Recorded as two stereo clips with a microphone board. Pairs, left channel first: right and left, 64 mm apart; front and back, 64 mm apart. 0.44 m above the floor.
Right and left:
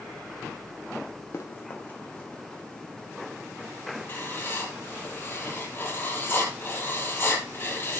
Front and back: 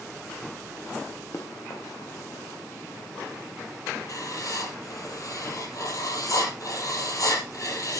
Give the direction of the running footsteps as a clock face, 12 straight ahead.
1 o'clock.